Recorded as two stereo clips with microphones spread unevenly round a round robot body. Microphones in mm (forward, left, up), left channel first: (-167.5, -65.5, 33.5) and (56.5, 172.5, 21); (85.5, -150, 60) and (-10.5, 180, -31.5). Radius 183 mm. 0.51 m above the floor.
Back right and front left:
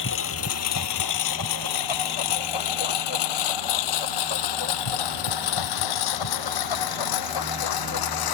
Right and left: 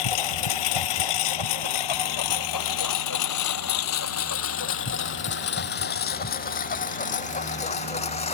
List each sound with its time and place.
0.0 s a lawn mower: 75° right; by 8.3 s 145° right